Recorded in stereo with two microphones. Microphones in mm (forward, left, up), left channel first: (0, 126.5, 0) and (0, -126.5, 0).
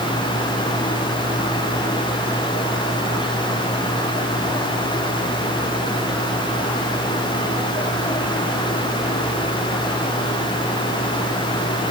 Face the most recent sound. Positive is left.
No sound to turn to.